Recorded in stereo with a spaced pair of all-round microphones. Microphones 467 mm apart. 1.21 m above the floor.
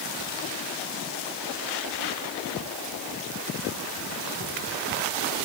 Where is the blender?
No blender in this recording.